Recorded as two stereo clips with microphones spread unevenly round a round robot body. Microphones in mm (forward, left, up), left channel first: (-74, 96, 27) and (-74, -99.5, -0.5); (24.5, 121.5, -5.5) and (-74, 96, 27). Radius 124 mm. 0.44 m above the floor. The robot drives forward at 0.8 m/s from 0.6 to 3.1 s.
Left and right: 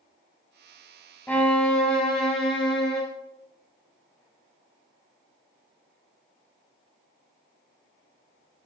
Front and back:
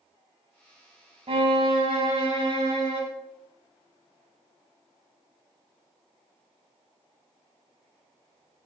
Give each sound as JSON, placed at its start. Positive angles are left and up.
{"t": 1.3, "sound": "a violin", "azimuth_deg": 170, "distance_m": 0.7}